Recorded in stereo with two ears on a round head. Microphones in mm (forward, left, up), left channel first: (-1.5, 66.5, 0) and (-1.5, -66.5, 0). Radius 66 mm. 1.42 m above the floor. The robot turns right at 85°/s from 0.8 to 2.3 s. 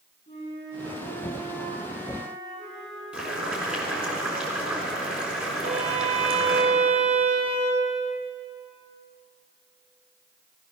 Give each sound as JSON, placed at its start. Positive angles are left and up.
{"t": 0.3, "sound": "a flute", "azimuth_deg": 140, "distance_m": 6.5}
{"t": 3.1, "sound": "boiling", "side_deg": -10, "distance_m": 3.5}
{"t": 5.6, "sound": "a violin", "side_deg": -50, "distance_m": 1.9}